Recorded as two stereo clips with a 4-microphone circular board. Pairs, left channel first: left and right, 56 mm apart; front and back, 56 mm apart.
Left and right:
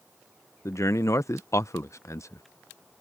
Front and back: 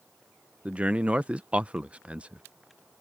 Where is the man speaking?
115° left.